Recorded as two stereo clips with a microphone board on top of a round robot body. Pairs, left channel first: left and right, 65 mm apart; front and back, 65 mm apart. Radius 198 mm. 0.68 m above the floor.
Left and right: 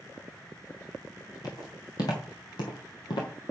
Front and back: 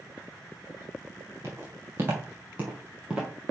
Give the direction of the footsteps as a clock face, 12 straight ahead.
8 o'clock.